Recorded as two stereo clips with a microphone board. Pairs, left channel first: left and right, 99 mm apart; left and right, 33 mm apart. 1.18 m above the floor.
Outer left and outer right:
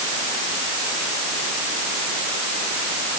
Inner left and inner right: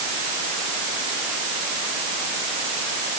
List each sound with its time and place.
Only background noise.